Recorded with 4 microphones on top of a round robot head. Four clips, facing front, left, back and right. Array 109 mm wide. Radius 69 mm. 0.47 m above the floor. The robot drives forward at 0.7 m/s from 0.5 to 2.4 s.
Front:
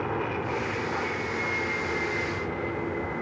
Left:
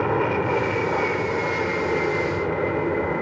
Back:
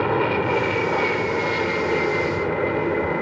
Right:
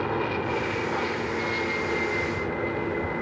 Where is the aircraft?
145° left.